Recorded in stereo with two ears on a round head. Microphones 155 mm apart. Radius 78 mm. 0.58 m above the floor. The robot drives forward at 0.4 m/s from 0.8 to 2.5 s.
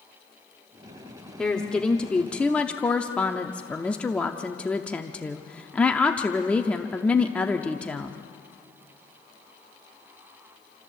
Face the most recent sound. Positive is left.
turn(degrees=5)  # may be behind; listen again after turning